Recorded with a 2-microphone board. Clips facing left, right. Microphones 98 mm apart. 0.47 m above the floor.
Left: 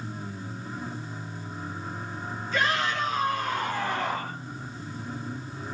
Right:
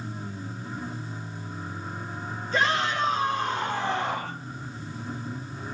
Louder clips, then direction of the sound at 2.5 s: Right 2 dB; 40° right (ahead or behind).